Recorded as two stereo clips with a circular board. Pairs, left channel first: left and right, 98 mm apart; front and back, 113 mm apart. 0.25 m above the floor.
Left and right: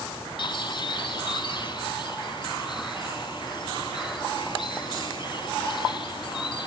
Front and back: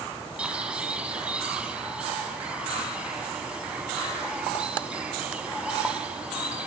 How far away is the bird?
About 1.4 m.